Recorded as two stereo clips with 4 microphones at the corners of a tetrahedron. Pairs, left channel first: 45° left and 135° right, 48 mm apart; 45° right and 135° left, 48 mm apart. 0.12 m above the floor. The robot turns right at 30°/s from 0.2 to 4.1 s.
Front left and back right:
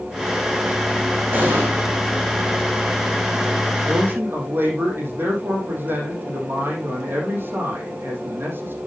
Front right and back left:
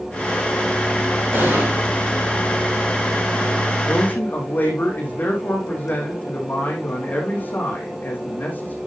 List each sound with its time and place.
1.3 s an explosion: straight behind, 6.5 m; by 1.7 s 170° right, 6.5 m
3.8 s a man speaking: 100° right, 6 m; by 8.8 s 95° right, 6 m